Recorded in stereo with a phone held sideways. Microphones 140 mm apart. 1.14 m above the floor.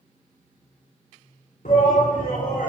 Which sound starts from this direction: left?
A shout, at 1.6 s.